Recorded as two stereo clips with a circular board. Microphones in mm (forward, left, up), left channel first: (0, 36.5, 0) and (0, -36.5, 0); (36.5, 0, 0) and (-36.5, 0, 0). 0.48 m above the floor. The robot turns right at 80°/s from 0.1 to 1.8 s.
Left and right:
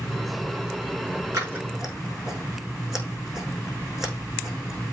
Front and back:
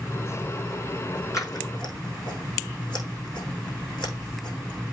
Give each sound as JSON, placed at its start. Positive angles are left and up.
{"t": 1.3, "sound": "scissors", "azimuth_deg": -45, "distance_m": 5.5}